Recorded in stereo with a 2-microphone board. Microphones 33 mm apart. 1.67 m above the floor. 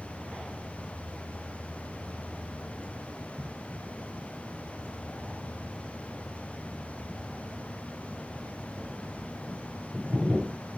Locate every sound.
0.0 s an insect: 55° left (ahead or behind), 8 m